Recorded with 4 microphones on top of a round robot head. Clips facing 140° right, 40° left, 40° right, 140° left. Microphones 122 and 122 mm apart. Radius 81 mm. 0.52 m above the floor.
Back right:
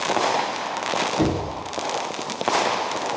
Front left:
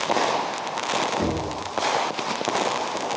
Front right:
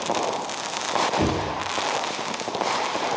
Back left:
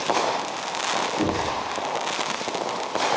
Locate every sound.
1.2 s knocking: 95° right, 3.5 m